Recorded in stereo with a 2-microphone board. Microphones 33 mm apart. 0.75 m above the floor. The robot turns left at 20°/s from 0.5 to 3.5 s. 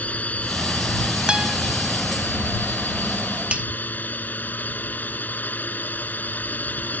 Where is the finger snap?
40° right (ahead or behind).